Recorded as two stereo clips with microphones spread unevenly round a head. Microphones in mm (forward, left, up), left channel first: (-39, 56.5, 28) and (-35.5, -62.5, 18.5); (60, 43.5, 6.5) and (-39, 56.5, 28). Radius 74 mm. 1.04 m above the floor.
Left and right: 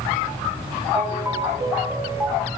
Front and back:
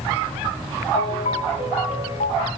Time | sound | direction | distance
0.9 | a ringtone | straight ahead | 5.5 m